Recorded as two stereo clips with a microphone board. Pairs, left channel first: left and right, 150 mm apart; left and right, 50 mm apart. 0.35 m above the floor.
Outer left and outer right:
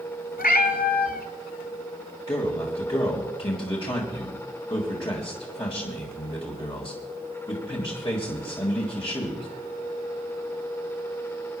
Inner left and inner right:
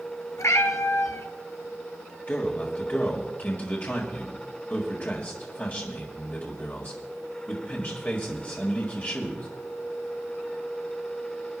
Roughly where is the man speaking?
Left.